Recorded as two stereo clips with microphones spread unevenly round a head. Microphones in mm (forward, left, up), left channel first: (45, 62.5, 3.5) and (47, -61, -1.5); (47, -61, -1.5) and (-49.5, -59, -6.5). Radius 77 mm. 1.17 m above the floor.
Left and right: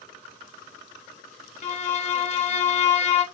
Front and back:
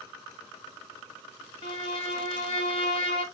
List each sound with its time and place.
1.6 s a violin: 55° left, 0.9 m